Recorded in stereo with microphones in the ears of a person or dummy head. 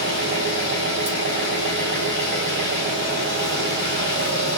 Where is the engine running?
60° right (ahead or behind), 3 m.